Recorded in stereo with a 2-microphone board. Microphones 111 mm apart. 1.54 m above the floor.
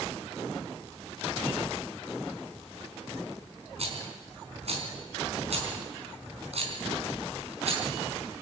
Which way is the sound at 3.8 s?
65° right (ahead or behind).